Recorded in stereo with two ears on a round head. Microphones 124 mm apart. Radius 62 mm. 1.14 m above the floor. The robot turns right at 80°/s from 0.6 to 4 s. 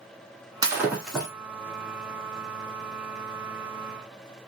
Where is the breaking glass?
40° right, 1.4 m; by 1.3 s 15° left, 1.4 m.